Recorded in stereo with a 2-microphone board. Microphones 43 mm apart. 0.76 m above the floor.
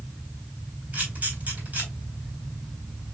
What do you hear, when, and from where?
0.9 s a camera shutter: 40° right (ahead or behind), 3.5 m